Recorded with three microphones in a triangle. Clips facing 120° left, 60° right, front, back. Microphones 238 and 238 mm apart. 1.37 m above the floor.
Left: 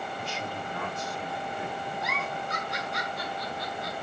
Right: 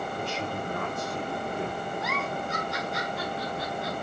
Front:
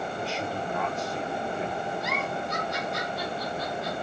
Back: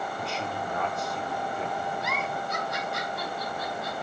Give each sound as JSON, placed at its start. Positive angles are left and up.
{"t": 0.2, "sound": "a man speaking", "azimuth_deg": -90, "distance_m": 4.0}
{"t": 2.0, "sound": "a giggle", "azimuth_deg": -150, "distance_m": 8.0}